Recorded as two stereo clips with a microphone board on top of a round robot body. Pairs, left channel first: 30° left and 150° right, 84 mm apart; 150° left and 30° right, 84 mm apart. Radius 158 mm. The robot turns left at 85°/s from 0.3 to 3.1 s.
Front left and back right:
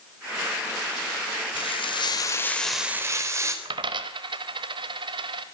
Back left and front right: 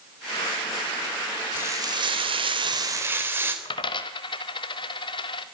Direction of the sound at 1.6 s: 40° left.